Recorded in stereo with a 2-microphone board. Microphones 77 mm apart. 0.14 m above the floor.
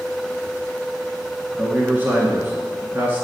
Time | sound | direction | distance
1.6 | a man speaking | 25° right (ahead or behind) | 1.4 m